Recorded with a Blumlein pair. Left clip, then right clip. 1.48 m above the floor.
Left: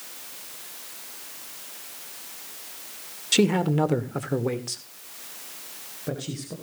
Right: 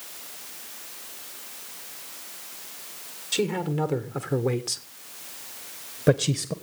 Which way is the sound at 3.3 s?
20° left.